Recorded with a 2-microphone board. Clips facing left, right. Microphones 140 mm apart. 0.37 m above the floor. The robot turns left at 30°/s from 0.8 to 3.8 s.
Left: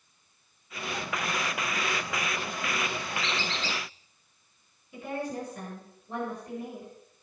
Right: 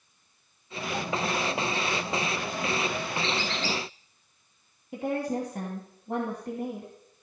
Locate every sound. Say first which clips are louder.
3.2 s a squeak: right 3 dB; 60° right (ahead or behind), 4 m; by 3.8 s 75° right (ahead or behind), 4 m
4.9 s a woman speaking: right 5 dB; 70° right (ahead or behind), 3 m